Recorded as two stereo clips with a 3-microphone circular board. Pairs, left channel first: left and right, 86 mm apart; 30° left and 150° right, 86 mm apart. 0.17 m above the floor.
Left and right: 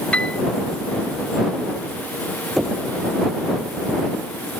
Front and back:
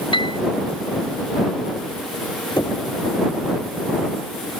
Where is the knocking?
5° right.